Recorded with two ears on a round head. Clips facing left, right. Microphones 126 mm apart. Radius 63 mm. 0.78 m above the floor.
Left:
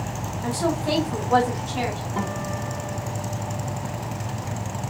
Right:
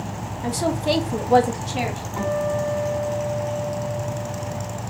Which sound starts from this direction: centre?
A woman speaking, at 0.4 s.